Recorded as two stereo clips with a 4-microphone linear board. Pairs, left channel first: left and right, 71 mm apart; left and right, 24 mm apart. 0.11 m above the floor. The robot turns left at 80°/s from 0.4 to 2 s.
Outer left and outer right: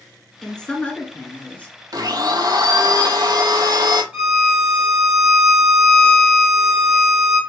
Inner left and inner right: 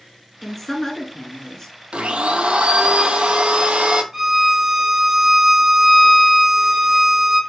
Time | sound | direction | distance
0.4 | a woman speaking | 10° left (ahead or behind) | 1.1 m
1.9 | a blender | 55° right (ahead or behind) | 0.6 m
4.1 | a violin | 10° right (ahead or behind) | 2.5 m